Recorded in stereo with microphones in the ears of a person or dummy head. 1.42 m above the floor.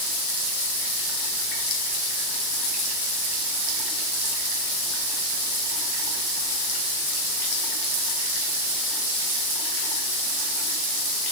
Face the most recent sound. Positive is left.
No sound to turn to.